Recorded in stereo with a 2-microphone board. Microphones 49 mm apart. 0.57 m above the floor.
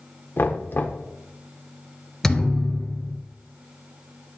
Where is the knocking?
45° left (ahead or behind), 1.2 m.